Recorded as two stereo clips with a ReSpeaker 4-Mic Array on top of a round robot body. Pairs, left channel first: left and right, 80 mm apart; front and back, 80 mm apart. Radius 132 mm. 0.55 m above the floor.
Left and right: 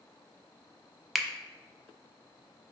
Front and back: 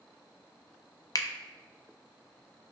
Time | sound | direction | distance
1.1 | a finger snap | straight ahead | 0.6 m